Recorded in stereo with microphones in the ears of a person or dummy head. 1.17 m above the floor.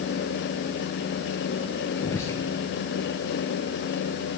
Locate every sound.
2.0 s whispering: 10° left (ahead or behind), 0.8 m